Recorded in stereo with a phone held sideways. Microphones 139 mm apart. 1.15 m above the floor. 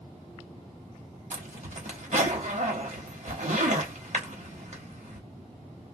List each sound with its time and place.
1.3 s a zipper: 60° right (ahead or behind), 1.1 m